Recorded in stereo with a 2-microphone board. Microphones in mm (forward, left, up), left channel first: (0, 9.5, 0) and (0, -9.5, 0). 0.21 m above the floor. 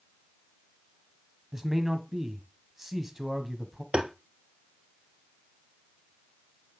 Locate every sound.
1.5 s a man speaking: 25° right (ahead or behind), 1.2 m
3.9 s tapping: 75° right (ahead or behind), 0.9 m